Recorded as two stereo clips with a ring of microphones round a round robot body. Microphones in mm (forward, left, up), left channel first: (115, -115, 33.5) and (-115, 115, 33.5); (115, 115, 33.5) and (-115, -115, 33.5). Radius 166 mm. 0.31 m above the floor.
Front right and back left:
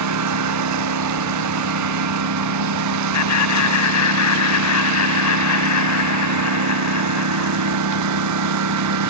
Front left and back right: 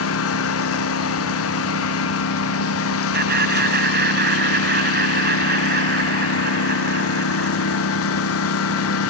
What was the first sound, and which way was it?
A lawn mower, 95° left.